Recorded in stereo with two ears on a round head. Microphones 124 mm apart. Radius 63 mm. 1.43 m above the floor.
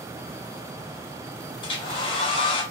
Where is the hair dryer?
35° left (ahead or behind), 0.9 m.